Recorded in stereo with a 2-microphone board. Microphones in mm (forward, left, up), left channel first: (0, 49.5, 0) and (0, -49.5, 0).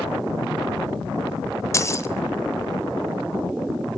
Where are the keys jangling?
30° left (ahead or behind), 0.9 m.